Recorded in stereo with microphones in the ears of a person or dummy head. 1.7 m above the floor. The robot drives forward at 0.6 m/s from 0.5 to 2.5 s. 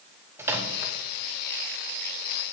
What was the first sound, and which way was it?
A microwave, 10° right (ahead or behind).